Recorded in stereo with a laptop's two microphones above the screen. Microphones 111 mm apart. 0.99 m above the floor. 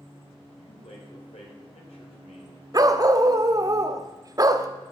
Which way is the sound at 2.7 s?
35° right (ahead or behind).